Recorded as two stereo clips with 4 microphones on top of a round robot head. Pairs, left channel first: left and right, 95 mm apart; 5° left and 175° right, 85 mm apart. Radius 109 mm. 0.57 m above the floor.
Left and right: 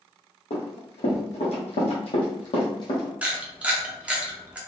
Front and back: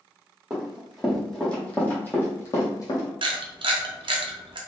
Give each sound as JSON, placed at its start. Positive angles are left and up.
{"t": 0.5, "sound": "running footsteps", "azimuth_deg": 105, "distance_m": 1.8}
{"t": 3.2, "sound": "a camera shutter", "azimuth_deg": -165, "distance_m": 0.7}